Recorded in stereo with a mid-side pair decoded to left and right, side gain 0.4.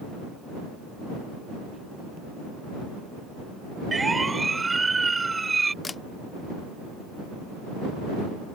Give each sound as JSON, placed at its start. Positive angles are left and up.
{"t": 3.9, "sound": "a siren", "azimuth_deg": -25}
{"t": 5.8, "sound": "a camera shutter", "azimuth_deg": 25}